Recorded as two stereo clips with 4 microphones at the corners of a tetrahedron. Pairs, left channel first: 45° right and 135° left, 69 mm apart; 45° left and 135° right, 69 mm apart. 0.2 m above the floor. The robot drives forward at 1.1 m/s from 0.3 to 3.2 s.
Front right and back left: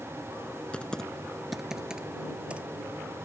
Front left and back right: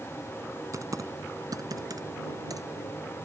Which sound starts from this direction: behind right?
Typing on a keyboard, at 0.7 s.